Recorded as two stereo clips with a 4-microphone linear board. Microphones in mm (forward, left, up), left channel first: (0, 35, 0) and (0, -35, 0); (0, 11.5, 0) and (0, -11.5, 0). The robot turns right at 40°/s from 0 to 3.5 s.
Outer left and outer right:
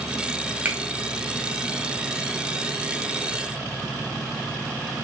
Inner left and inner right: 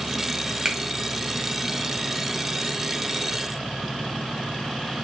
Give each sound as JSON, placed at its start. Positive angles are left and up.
{"t": 0.7, "sound": "a finger snap", "side_deg": -25, "distance_m": 0.9}